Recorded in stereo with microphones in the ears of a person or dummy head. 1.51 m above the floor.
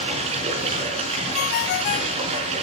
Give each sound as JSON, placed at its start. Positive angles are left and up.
{"t": 0.0, "sound": "running water", "side_deg": -40, "distance_m": 5.0}
{"t": 1.3, "sound": "a ringtone", "side_deg": 45, "distance_m": 0.8}